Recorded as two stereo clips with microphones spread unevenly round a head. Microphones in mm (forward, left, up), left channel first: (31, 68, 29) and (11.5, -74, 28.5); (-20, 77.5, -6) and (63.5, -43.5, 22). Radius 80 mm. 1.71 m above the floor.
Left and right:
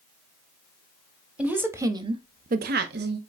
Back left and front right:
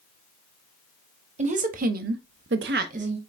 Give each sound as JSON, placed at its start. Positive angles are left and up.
{"t": 1.4, "sound": "a woman speaking", "azimuth_deg": -15, "distance_m": 0.9}